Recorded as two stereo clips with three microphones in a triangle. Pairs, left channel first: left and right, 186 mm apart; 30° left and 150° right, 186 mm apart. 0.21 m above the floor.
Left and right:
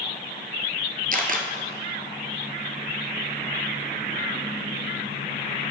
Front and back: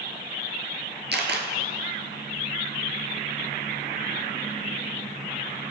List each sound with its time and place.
1.1 s a camera shutter: 130° right, 1.4 m